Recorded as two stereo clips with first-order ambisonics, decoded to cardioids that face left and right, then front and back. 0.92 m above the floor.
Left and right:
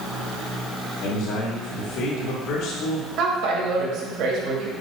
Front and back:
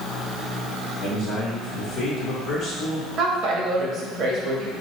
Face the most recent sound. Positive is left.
turn(degrees=-125)